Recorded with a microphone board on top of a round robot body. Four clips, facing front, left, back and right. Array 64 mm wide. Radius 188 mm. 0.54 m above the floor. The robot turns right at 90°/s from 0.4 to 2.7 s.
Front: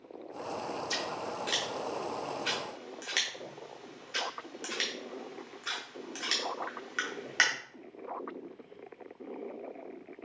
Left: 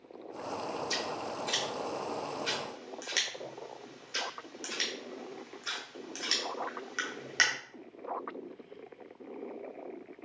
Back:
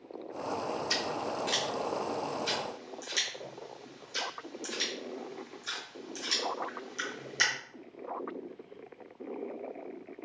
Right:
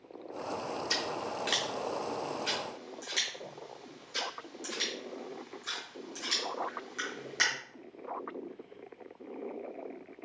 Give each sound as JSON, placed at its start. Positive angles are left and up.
{"t": 0.9, "sound": "scissors", "azimuth_deg": -140, "distance_m": 0.6}